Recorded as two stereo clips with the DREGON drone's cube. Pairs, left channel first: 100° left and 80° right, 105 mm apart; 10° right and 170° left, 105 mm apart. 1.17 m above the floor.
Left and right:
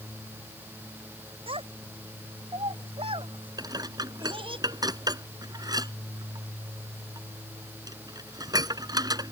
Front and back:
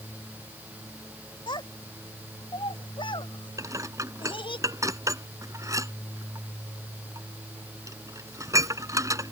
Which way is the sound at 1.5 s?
55° right.